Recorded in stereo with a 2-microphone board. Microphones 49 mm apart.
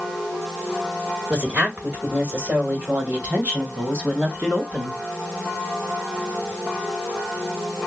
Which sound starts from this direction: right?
A woman speaking, at 1.3 s.